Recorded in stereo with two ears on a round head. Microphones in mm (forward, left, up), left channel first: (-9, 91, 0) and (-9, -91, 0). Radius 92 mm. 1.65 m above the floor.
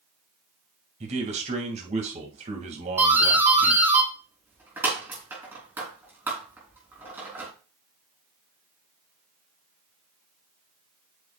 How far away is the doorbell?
About 3.5 m.